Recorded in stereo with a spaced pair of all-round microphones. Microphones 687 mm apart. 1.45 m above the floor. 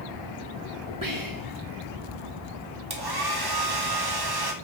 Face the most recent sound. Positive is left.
turn(degrees=-35)  # may be behind; listen again after turning